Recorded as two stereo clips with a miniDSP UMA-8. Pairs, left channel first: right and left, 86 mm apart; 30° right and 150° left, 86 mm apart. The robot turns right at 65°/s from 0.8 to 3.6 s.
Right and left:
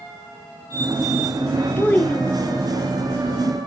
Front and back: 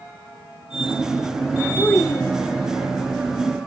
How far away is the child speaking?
About 0.5 m.